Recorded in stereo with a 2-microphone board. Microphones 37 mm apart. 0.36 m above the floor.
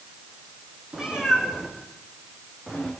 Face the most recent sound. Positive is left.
turn(degrees=-15)  # may be behind; listen again after turning